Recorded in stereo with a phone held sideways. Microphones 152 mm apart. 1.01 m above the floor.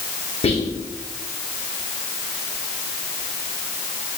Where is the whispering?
40° left (ahead or behind), 0.6 m.